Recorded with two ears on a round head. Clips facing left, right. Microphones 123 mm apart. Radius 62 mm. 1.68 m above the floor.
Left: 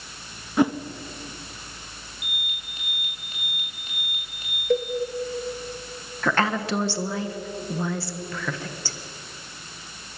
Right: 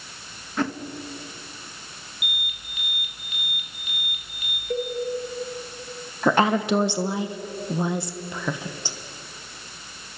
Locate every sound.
0.6 s a whoosh: 10° left (ahead or behind), 1.0 m
2.2 s an alarm: 30° left (ahead or behind), 6 m
4.7 s a cowbell: 55° left (ahead or behind), 1.8 m
6.2 s a woman speaking: 15° right (ahead or behind), 1.3 m